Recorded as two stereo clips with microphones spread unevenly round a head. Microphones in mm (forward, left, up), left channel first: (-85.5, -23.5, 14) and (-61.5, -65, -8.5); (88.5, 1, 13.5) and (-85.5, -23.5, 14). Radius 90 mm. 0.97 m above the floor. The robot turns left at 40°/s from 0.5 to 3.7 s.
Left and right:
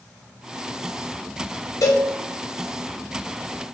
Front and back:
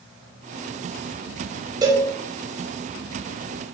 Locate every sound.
1.8 s a cowbell: 115° left, 5 m; by 2.1 s 105° left, 5 m